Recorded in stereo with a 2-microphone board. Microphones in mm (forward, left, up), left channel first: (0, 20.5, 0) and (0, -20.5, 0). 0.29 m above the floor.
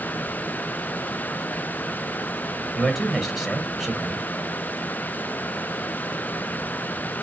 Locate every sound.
2.8 s a man speaking: centre (ahead or behind), 1.4 m